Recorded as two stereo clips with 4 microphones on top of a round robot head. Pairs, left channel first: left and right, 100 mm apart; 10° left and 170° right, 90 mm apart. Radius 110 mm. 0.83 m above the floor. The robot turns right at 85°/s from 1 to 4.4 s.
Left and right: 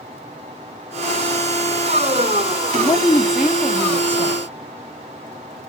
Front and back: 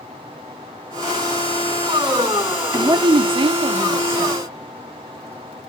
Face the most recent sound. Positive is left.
turn(degrees=-85)